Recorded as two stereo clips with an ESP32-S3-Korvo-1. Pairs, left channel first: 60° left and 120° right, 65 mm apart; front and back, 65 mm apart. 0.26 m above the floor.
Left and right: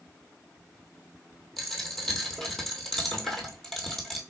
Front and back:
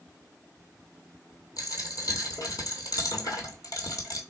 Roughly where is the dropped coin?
Ahead right.